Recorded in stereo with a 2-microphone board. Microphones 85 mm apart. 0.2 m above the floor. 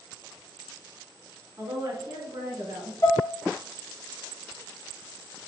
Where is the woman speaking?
55° right (ahead or behind), 1.8 m; by 2.9 s 65° right (ahead or behind), 2 m.